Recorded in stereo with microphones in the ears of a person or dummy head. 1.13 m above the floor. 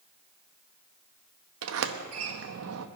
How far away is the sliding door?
About 0.9 m.